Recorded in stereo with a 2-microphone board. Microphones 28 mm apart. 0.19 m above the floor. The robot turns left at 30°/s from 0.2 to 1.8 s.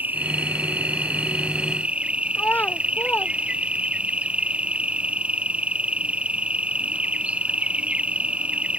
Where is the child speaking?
80° left.